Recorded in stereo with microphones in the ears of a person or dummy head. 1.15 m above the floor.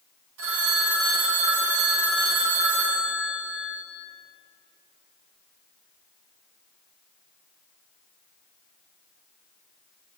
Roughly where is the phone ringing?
Right.